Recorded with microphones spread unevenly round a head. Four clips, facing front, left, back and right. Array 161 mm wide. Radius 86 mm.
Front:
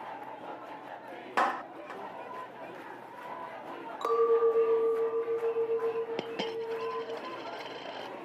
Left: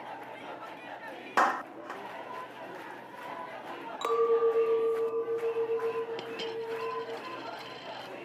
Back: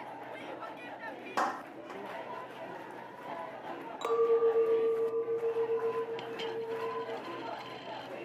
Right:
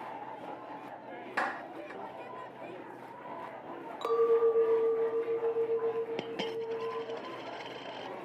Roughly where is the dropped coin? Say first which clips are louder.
Right 1 dB, front 2 dB; ahead.